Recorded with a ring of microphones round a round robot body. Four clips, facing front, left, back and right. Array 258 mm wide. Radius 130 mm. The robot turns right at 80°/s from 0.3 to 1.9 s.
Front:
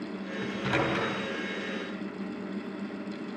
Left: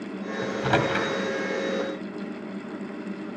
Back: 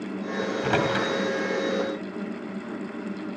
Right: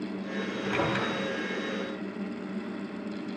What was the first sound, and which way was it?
A microwave, 90° left.